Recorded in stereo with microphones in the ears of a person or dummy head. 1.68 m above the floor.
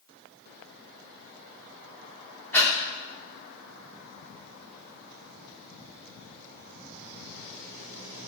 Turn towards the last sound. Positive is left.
turn(degrees=10)  # may be behind; listen again after turning